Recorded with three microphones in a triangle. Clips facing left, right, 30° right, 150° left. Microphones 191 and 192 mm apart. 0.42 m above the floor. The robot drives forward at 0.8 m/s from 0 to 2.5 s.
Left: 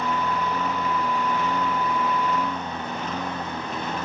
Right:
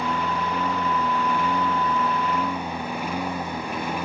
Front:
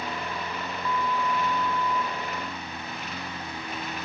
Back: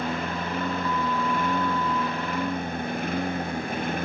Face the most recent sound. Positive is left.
turn(degrees=-170)